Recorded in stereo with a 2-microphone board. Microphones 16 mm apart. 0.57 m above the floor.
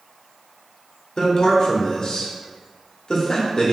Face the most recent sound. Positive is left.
turn(degrees=40)  # may be behind; listen again after turning